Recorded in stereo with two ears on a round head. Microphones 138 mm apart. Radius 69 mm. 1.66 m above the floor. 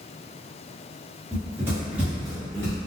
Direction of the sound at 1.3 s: 25° right (ahead or behind).